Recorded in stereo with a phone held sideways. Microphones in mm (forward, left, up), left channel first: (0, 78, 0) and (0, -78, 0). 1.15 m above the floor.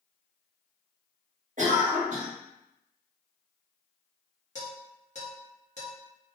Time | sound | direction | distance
1.6 | a cough | 50° right (ahead or behind) | 1.0 m
4.5 | dishes clattering | 50° left (ahead or behind) | 1.0 m